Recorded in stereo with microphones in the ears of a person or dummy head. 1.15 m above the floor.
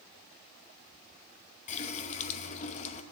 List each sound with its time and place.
1.7 s a running tap: 40° left (ahead or behind), 0.9 m